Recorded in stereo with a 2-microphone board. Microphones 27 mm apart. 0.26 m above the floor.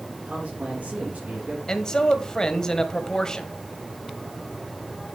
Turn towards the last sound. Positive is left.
turn(degrees=25)  # may be behind; listen again after turning